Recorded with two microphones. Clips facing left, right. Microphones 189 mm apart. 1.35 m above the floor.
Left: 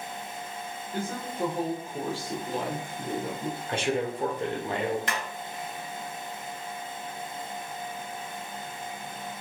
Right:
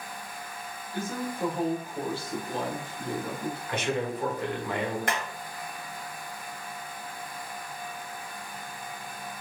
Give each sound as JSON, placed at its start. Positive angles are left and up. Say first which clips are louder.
{"t": 0.9, "sound": "a woman speaking", "louder": "even", "side_deg": 55, "distance_m": 1.2}
{"t": 3.7, "sound": "a man speaking", "louder": "left 2 dB", "side_deg": 30, "distance_m": 0.9}
{"t": 5.1, "sound": "hammering", "louder": "right 2 dB", "side_deg": -50, "distance_m": 1.1}